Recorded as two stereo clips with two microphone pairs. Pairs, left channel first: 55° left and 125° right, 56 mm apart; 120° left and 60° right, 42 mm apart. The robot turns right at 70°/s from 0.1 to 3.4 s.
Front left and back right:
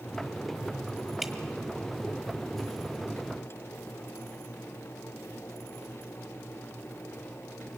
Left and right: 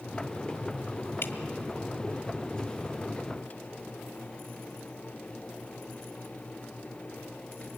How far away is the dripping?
About 1.5 m.